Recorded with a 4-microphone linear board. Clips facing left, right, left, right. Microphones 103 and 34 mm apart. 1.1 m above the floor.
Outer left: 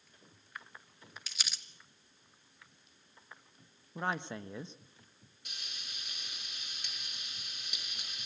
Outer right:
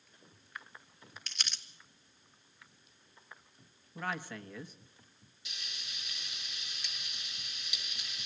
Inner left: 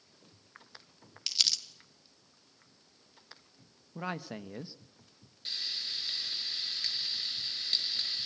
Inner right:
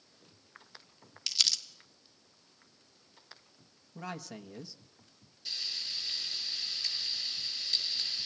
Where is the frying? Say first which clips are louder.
Outer right 1 dB, inner left 1 dB; 50° left (ahead or behind), 6 m.